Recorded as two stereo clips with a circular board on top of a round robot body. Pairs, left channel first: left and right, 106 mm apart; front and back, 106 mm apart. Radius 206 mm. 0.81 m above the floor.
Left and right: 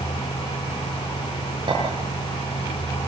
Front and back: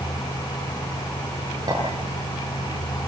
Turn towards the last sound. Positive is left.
turn(degrees=-130)